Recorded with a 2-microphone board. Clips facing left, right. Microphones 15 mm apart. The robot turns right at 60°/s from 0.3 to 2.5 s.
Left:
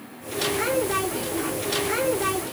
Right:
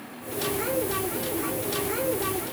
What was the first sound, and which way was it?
Only background noise.